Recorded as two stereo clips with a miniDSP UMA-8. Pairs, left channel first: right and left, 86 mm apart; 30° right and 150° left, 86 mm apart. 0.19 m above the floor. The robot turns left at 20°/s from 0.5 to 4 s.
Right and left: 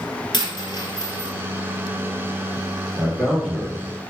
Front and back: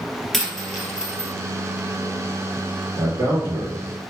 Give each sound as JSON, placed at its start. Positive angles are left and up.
{"t": 0.3, "sound": "a dropped coin", "azimuth_deg": -115, "distance_m": 1.3}
{"t": 3.0, "sound": "a man speaking", "azimuth_deg": -165, "distance_m": 2.0}